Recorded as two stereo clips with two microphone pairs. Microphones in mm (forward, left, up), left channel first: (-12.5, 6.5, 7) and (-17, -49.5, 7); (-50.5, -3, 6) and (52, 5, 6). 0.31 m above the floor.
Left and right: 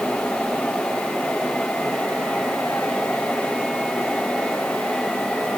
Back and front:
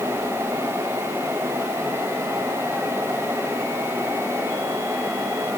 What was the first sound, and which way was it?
Only background noise.